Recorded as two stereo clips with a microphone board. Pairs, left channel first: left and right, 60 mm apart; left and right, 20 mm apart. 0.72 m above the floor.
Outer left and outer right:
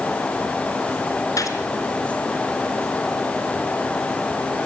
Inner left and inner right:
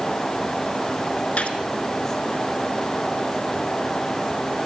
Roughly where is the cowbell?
No cowbell in this recording.